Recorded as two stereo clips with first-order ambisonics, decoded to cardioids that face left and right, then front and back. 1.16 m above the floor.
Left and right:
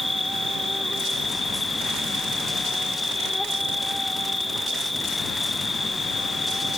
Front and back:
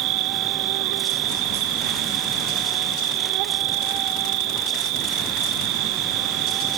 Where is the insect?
170° left.